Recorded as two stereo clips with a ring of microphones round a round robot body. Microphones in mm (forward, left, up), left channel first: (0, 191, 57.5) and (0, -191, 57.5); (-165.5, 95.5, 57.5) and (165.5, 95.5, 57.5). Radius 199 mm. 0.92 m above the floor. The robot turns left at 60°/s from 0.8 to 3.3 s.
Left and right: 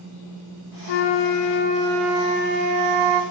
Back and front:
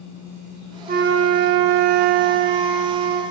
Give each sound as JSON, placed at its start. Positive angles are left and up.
{"t": 0.9, "sound": "a flute", "azimuth_deg": 70, "distance_m": 0.6}